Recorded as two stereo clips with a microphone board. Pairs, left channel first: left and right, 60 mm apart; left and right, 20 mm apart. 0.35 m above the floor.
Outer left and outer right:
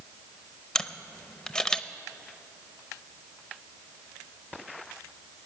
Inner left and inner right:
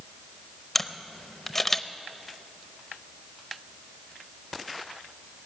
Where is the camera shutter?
15° left (ahead or behind), 0.6 m.